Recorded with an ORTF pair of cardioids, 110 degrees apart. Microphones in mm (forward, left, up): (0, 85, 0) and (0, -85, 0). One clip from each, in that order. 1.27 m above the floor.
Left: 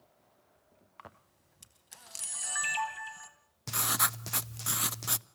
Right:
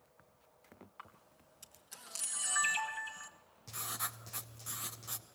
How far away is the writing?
About 0.7 m.